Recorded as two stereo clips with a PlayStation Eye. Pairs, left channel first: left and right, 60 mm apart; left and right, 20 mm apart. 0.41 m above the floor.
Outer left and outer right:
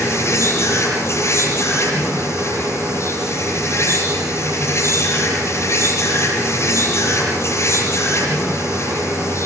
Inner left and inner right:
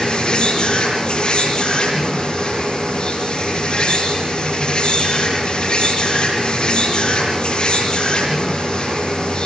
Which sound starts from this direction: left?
An insect, at 0.0 s.